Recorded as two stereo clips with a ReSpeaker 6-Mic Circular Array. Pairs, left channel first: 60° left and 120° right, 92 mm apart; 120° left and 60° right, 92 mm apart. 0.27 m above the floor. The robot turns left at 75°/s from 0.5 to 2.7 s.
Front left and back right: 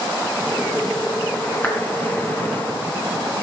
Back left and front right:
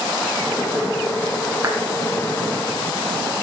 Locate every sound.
1.6 s a clap: 5° right, 3 m; by 1.8 s 15° right, 3 m